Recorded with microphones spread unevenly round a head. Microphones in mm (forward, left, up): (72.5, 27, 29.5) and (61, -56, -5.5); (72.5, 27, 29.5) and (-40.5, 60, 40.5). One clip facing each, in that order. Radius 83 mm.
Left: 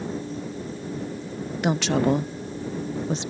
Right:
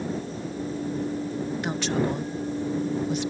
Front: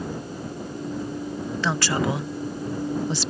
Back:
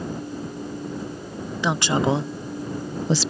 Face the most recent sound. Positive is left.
turn(degrees=160)